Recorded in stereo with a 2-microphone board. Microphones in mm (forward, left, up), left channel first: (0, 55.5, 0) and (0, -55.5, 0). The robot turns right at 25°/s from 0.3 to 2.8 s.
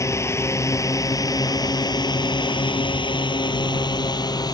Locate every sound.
0.0 s a drone: 30° left (ahead or behind); by 4.5 s 40° left (ahead or behind)